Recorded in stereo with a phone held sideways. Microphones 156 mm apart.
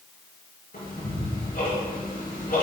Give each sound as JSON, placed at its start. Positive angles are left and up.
{"t": 0.7, "sound": "ticking", "side_deg": 75, "distance_m": 3.5}